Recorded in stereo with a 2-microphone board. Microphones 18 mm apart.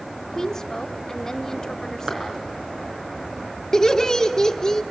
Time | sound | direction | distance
0.2 | a woman speaking | 20° left (ahead or behind) | 1.1 m
2.1 | a clap | 45° right (ahead or behind) | 5 m
3.7 | laughter | 20° left (ahead or behind) | 1.1 m